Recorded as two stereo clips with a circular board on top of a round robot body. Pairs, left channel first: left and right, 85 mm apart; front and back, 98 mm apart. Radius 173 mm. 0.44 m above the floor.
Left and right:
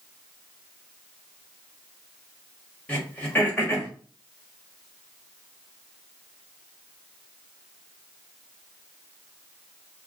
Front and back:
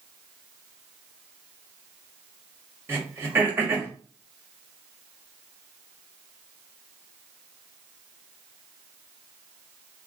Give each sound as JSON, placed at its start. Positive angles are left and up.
{"t": 2.9, "sound": "throat clearing", "azimuth_deg": 145, "distance_m": 1.5}